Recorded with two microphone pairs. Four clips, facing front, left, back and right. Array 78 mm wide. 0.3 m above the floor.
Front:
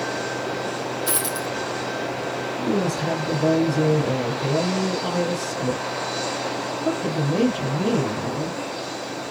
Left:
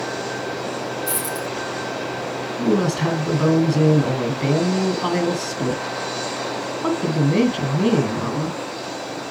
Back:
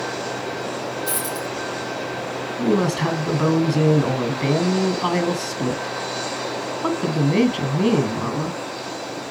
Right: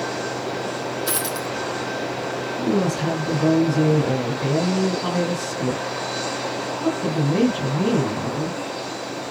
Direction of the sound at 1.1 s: 50° right.